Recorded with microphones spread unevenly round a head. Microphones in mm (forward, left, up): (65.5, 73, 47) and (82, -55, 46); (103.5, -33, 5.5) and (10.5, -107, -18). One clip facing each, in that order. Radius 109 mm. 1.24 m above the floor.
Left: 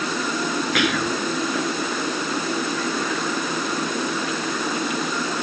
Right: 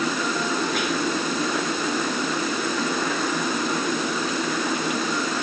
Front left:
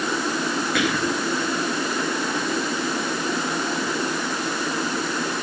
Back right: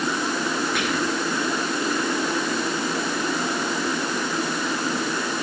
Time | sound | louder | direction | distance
0.8 | whispering | left 2 dB, front left 1 dB | 75° left | ?